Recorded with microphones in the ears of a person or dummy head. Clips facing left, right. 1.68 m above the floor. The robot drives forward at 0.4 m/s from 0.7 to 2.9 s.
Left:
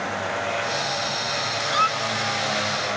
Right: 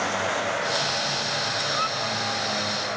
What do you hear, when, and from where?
1.7 s a squeak: 75° left (ahead or behind)